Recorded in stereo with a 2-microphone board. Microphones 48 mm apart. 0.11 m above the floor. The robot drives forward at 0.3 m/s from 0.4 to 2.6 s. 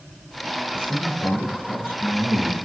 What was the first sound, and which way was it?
A man speaking, 55° left (ahead or behind).